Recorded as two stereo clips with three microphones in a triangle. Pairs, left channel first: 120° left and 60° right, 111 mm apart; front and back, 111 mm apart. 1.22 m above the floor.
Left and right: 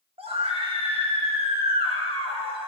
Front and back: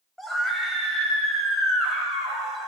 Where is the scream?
90° right, 6 m.